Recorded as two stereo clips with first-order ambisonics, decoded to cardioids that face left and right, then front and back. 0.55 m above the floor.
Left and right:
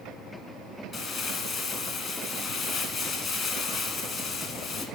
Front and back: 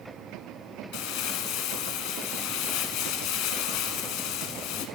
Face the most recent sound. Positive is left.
turn(degrees=15)